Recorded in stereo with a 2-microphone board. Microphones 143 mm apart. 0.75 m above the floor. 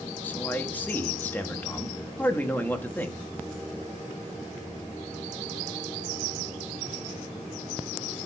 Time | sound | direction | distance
0.2 | a man speaking | 15° left (ahead or behind) | 1.1 m